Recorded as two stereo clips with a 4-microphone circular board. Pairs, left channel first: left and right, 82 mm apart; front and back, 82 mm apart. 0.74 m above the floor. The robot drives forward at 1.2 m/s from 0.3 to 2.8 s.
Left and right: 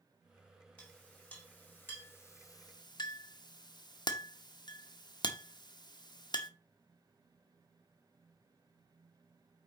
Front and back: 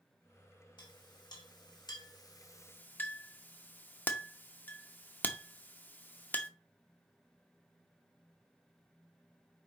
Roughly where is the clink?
Ahead.